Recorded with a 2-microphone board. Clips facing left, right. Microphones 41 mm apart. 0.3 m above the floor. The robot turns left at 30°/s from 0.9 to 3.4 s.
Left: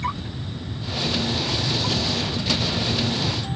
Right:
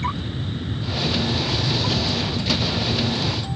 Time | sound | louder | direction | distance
0.0 | an aircraft | right 2 dB | 135° right | ?